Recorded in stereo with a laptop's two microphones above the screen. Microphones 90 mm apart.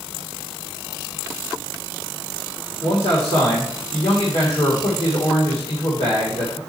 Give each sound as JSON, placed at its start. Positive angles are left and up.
{"t": 2.8, "sound": "a man speaking", "side_deg": 80, "distance_m": 2.0}